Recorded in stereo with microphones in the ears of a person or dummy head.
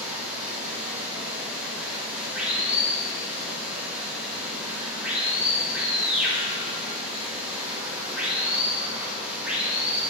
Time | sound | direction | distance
0.0 | running water | 10° right (ahead or behind) | 1.5 m